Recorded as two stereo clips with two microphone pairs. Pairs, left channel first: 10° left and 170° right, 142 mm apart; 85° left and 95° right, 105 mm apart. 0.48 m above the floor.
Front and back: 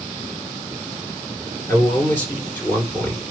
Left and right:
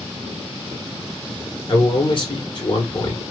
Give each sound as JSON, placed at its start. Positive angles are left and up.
{"t": 1.7, "sound": "a man speaking", "azimuth_deg": 85, "distance_m": 1.9}